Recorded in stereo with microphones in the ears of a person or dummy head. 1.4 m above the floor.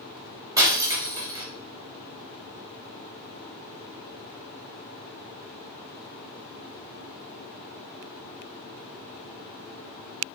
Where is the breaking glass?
15° right (ahead or behind), 3.5 m.